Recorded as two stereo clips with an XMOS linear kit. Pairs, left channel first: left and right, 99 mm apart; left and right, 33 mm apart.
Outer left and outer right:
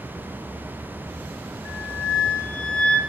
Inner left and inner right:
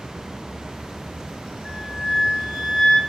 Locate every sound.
1.6 s a flute: 35° right (ahead or behind), 5.5 m